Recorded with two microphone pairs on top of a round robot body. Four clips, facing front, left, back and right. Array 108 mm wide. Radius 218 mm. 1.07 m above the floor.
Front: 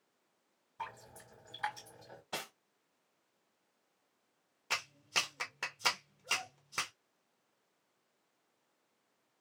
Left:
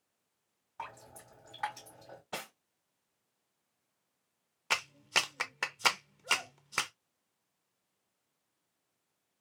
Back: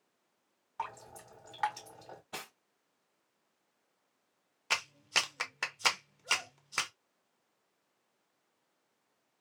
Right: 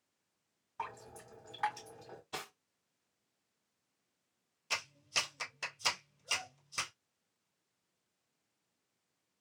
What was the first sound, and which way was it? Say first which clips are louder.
Dripping: right 2 dB, back 5 dB; 175° left.